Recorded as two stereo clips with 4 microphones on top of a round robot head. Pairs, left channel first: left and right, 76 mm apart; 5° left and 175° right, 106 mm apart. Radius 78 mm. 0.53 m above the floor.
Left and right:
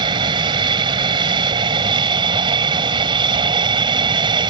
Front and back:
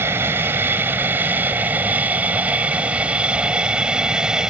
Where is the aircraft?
105° right; by 4.5 s 90° right.